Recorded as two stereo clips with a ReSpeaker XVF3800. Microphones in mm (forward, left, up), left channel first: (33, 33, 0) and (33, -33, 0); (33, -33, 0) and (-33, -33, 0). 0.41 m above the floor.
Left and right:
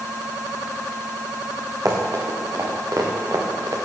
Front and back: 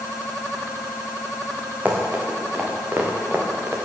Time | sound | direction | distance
1.9 | running footsteps | 110° right | 4.5 m